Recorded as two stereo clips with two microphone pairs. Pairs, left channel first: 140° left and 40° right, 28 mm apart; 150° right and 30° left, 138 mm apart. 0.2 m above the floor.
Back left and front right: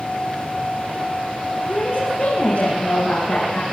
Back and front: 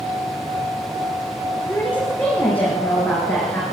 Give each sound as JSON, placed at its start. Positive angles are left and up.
{"t": 1.7, "sound": "a woman speaking", "azimuth_deg": 135, "distance_m": 4.5}